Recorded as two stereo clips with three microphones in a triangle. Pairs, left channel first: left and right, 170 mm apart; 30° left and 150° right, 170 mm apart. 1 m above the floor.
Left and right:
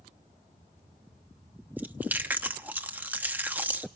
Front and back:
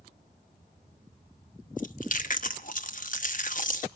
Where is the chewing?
10° right, 0.9 m.